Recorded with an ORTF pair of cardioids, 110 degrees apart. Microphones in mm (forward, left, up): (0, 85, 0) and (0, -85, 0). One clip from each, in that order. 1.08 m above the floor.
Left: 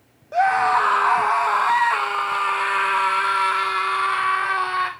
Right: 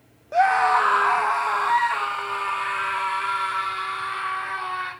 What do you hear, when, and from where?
0.3 s a scream: 5° right, 1.4 m; by 4.9 s 50° left, 3 m